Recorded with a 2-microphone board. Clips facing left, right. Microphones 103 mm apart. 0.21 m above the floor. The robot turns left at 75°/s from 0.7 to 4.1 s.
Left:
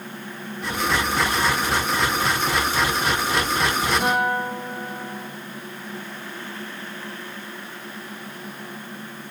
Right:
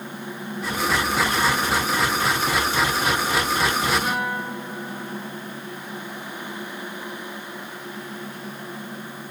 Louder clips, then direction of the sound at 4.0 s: Left 4 dB; 80° left.